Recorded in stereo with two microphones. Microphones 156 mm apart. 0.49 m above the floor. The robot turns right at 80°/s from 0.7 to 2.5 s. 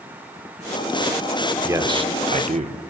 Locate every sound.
1.6 s a man speaking: 160° right, 1.1 m; by 2.8 s 90° right, 1.1 m